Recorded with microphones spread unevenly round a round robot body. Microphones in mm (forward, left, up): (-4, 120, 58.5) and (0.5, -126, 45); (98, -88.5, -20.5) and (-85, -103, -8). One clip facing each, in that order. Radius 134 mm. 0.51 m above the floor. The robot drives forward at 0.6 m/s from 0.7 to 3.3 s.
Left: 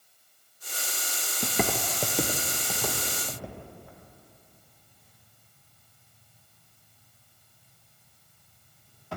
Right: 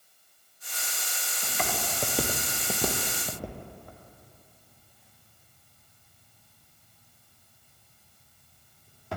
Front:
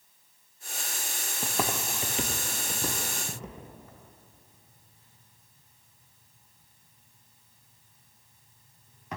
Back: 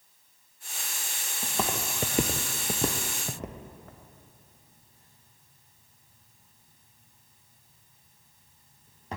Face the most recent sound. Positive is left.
turn(degrees=-115)